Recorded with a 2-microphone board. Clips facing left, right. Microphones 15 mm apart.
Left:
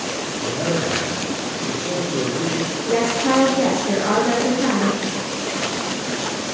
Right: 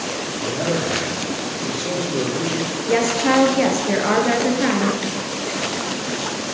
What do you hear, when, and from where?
0.4 s a man speaking: 40° right (ahead or behind), 5 m; by 2.8 s 50° right (ahead or behind), 4.5 m
2.9 s a woman speaking: 50° right (ahead or behind), 2.5 m